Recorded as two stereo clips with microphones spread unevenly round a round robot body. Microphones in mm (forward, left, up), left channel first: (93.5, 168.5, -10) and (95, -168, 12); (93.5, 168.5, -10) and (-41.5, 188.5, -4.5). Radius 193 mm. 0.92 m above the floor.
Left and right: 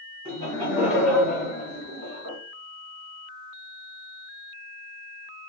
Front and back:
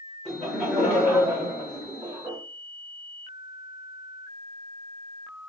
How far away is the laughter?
About 0.9 m.